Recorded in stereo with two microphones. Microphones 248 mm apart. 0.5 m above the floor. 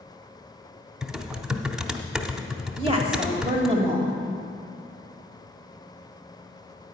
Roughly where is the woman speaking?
Right.